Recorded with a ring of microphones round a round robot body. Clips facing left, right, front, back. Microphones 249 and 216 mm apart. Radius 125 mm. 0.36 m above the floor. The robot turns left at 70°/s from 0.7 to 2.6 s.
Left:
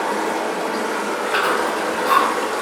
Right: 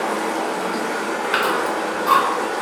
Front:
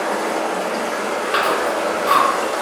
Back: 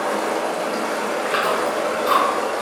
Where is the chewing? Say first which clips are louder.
Left 1 dB, front 2 dB; 100° right, 0.8 m; by 2.3 s 175° right, 0.8 m.